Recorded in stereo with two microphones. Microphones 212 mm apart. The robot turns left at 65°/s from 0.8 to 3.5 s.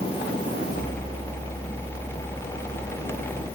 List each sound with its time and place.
Only background noise.